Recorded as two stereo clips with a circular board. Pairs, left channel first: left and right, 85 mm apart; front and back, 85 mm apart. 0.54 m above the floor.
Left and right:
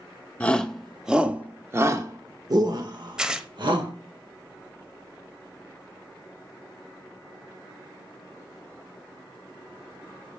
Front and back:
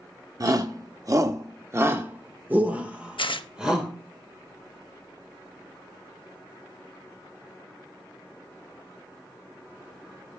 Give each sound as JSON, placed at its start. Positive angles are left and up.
{"t": 0.4, "sound": "a shout", "azimuth_deg": 160, "distance_m": 0.9}
{"t": 3.2, "sound": "tearing paper", "azimuth_deg": -10, "distance_m": 0.6}